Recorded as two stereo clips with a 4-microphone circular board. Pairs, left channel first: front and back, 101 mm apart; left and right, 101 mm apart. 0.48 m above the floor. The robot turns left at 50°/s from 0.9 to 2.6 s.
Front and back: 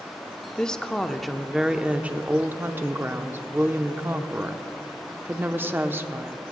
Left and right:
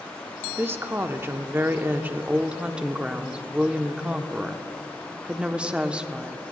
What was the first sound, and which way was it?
A woman speaking, 70° right.